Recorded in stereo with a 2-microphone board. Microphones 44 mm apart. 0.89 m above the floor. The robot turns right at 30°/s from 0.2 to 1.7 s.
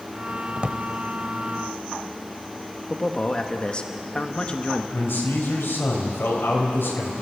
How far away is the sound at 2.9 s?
About 1.4 m.